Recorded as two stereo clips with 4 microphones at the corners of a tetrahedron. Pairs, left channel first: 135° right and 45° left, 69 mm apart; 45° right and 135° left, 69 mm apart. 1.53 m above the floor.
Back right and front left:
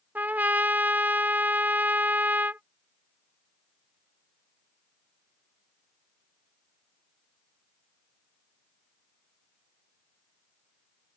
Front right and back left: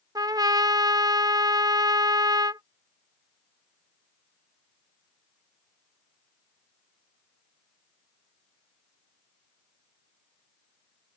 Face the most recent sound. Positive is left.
turn(degrees=110)